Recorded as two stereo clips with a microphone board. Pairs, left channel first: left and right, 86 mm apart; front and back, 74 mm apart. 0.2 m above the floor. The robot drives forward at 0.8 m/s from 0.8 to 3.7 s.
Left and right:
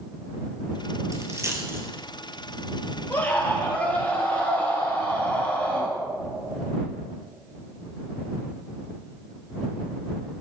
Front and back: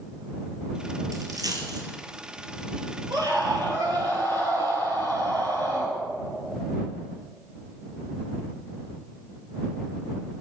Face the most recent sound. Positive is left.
turn(degrees=160)